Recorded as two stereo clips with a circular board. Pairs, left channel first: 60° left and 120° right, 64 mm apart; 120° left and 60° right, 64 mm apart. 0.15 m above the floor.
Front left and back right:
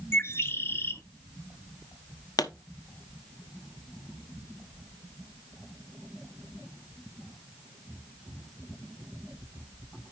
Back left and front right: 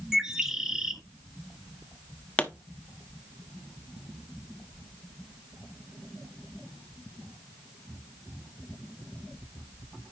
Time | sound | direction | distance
0.1 | a bird | 20° left | 1.0 m
2.4 | a pop | 50° left | 0.8 m